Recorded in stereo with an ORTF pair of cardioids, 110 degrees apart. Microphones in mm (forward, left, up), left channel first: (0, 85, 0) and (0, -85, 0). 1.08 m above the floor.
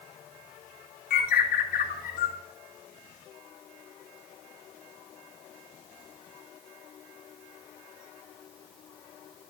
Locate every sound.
1.1 s a bird: 60° left, 3 m